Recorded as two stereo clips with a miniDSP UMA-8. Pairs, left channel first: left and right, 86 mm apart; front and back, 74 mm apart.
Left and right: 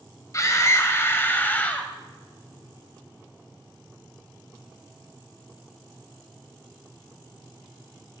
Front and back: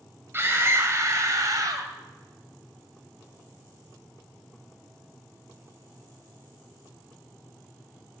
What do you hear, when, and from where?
0.3 s a scream: 130° left, 2.5 m; by 1.9 s 160° left, 2.5 m